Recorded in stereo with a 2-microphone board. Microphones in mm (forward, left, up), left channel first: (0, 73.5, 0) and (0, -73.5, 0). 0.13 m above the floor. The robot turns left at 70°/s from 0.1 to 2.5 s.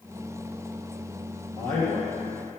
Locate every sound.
1.6 s a man speaking: 35° left, 2.5 m; by 2.1 s straight ahead, 2.5 m